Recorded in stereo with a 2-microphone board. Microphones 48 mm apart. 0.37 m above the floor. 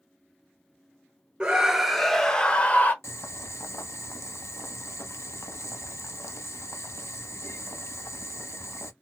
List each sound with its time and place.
1.4 s a scream: 20° right (ahead or behind), 1.0 m; by 2.9 s 35° left (ahead or behind), 1.1 m
3.0 s boiling: 80° left, 0.9 m